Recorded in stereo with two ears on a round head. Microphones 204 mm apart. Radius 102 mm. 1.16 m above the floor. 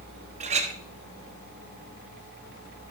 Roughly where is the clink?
Right.